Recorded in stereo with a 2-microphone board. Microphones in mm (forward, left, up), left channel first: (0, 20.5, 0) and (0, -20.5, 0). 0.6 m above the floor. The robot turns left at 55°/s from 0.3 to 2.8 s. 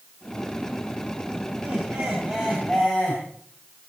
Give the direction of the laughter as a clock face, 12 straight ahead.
4 o'clock.